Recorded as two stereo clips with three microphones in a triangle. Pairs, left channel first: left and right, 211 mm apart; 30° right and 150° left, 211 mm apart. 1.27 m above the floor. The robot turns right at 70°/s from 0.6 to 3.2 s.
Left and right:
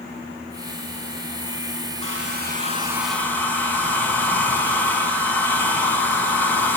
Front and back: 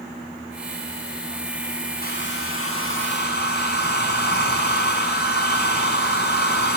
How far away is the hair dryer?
About 6 m.